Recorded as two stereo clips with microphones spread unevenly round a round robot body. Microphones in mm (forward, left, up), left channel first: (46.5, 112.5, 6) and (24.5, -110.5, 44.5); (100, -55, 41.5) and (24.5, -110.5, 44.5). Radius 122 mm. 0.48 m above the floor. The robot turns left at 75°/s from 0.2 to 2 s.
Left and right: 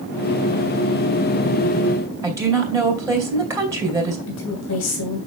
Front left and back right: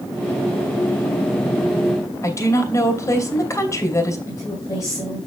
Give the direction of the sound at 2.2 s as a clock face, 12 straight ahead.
1 o'clock.